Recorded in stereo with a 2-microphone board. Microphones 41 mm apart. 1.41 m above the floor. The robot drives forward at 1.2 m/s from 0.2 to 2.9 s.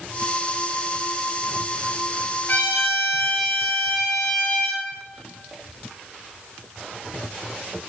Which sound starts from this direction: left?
A trumpet, at 2.5 s.